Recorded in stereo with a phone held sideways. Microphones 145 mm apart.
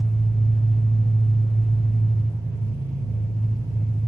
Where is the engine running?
75° right (ahead or behind), 2.5 m.